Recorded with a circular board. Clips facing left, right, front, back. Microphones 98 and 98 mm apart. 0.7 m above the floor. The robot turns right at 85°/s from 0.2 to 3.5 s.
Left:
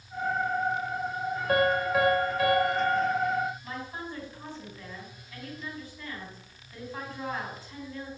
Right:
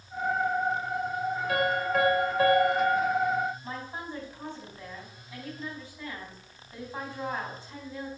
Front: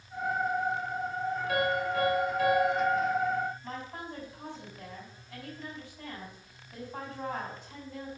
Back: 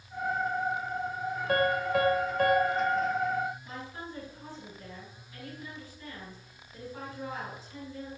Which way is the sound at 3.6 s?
25° right.